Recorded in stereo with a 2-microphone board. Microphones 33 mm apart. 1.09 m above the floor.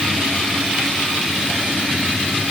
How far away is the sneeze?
I don't hear a sneeze.